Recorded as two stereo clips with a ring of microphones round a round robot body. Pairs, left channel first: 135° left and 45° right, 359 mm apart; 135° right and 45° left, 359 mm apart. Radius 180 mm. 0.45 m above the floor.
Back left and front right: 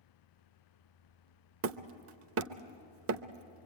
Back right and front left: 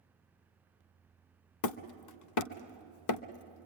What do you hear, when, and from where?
1.6 s hammering: 95° right, 0.7 m